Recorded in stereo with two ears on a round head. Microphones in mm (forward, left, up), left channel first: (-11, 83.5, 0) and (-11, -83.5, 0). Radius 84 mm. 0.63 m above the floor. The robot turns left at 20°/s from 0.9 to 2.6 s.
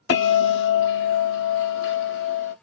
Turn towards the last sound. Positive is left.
turn(degrees=60)